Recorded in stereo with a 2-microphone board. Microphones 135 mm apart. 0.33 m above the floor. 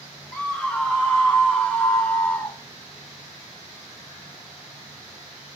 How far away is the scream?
About 2.5 m.